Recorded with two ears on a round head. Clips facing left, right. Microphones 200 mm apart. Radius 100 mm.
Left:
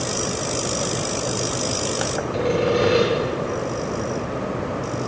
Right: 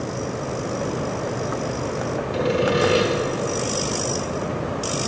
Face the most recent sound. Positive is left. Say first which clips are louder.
# left 1 dB
turn(degrees=-15)  # may be behind; listen again after turning